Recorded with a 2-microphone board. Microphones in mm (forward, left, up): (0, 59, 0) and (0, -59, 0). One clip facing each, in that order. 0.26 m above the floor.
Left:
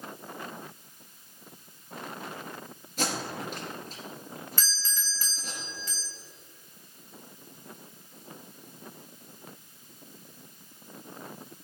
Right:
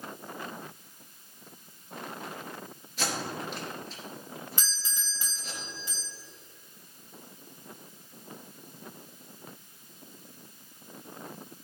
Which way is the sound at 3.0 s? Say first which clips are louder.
Left 1 dB; 45° left (ahead or behind).